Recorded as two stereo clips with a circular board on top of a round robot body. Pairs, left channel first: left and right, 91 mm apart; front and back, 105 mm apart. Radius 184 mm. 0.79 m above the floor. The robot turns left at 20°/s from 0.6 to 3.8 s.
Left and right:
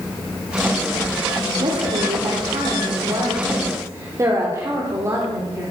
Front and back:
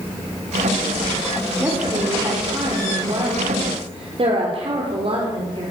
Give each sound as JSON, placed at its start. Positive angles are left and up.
{"t": 1.6, "sound": "a woman speaking", "azimuth_deg": -105, "distance_m": 3.5}